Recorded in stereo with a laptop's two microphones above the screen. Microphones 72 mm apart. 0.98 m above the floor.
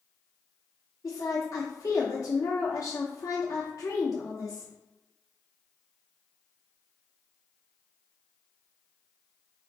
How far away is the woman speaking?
About 0.8 m.